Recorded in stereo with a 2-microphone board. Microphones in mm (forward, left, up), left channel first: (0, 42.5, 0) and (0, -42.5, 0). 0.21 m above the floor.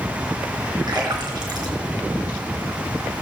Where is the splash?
55° right (ahead or behind), 3 m.